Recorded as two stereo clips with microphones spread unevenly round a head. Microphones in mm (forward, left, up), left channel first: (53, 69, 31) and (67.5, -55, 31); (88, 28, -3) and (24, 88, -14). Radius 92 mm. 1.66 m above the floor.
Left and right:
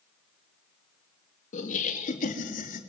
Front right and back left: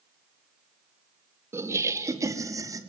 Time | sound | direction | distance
1.5 | laughter | 75° left | 2.5 m